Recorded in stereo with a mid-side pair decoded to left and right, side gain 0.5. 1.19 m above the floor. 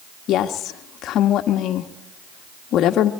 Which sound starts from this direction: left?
A woman speaking, at 0.3 s.